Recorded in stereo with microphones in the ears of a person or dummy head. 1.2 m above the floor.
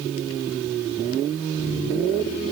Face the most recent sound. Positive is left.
No sound to turn to.